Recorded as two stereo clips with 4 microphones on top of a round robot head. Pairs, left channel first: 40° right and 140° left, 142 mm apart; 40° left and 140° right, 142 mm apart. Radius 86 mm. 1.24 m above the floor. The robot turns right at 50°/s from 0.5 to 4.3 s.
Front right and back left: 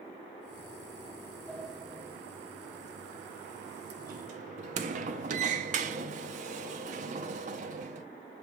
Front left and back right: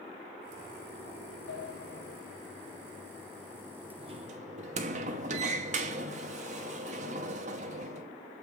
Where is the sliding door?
40° left, 1.0 m; by 8.1 s straight behind, 1.0 m.